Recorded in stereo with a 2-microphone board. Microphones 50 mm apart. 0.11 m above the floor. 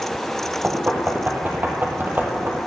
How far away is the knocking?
About 2 m.